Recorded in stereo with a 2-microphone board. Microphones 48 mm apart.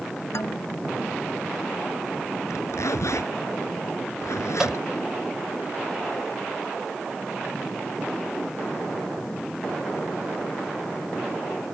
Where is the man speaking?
70° left (ahead or behind).